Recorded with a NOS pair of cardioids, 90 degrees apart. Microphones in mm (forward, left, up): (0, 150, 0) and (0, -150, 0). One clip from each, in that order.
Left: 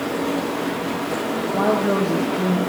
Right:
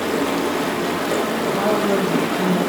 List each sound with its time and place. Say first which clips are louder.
0.0 s running water: right 3 dB; 55° right, 1.4 m
1.5 s a woman speaking: left 1 dB; 5° left, 0.9 m